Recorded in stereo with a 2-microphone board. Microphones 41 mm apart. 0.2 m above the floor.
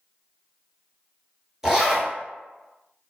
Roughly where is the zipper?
Centre.